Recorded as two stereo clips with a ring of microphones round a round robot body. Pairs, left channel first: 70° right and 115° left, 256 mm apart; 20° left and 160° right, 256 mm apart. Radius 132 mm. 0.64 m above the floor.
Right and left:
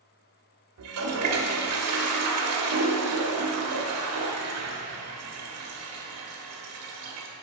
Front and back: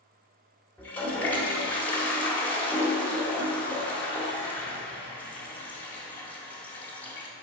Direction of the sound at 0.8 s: 105° left.